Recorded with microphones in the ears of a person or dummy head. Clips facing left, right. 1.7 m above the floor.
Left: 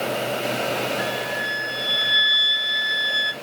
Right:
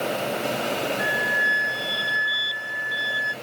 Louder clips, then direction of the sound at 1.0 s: Left 1 dB; 40° left (ahead or behind).